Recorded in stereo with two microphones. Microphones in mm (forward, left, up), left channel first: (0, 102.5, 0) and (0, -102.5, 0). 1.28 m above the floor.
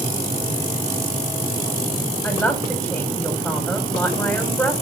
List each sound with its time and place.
2.2 s a man speaking: 5° left (ahead or behind), 5 m